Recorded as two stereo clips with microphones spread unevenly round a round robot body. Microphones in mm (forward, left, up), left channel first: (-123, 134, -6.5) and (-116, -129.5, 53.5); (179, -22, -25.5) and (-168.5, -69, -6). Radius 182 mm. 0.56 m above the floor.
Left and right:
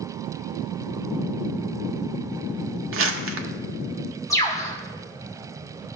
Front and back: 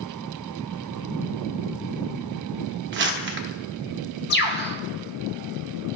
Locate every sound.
2.9 s crumpling: 125° right, 1.0 m
4.3 s a bird: 40° left, 0.7 m